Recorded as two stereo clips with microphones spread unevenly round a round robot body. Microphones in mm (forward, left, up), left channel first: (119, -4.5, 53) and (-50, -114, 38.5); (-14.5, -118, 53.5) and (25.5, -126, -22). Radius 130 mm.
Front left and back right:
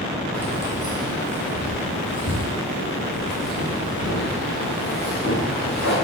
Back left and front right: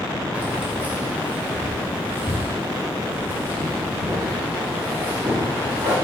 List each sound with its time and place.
0.3 s keys jangling: 50° right, 1.7 m; by 6.0 s 10° left, 3.5 m